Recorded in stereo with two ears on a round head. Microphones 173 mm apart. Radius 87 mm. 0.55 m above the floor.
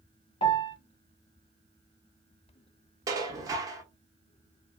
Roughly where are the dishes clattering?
Centre.